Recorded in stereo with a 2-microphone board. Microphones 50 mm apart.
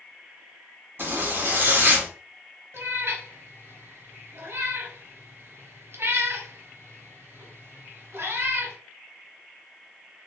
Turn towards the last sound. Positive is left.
turn(degrees=-65)  # may be behind; listen again after turning